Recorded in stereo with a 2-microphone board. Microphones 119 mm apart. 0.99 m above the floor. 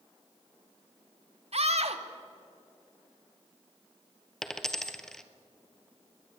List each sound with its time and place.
1.5 s a scream: 60° right (ahead or behind), 1.8 m
4.4 s a dropped coin: 5° left (ahead or behind), 1.2 m